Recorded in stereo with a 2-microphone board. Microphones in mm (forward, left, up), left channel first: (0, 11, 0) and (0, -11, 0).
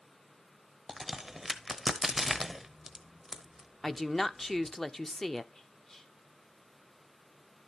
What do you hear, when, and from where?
0.9 s a crack: 10° right (ahead or behind), 0.9 m
3.8 s a woman speaking: 10° left (ahead or behind), 0.7 m
5.5 s whispering: 25° left (ahead or behind), 1.5 m